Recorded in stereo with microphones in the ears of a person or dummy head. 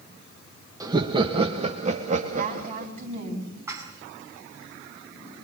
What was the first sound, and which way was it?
Laughter, 20° right (ahead or behind).